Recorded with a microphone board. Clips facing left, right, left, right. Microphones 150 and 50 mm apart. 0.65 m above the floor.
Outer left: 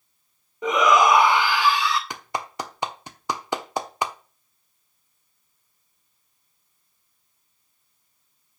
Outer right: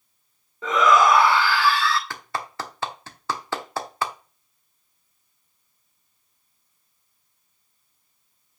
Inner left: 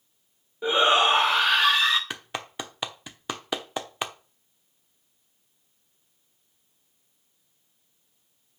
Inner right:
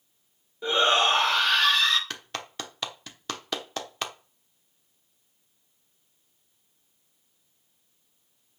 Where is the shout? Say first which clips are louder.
Even, inner left 2 dB; 20° left (ahead or behind), 1.0 m.